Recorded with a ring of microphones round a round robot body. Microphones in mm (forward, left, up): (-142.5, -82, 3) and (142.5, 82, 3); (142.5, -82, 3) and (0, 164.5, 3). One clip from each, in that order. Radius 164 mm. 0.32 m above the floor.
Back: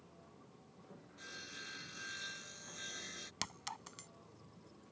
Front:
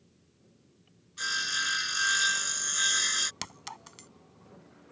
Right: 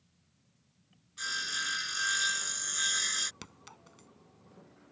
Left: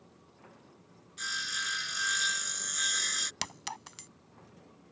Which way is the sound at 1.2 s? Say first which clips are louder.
Front 20 dB, even; 20° left.